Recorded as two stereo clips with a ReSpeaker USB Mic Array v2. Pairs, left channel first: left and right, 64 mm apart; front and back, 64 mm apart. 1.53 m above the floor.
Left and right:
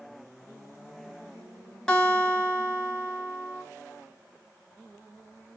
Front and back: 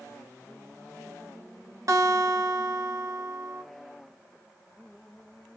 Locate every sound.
1.9 s a guitar: 165° left, 1.3 m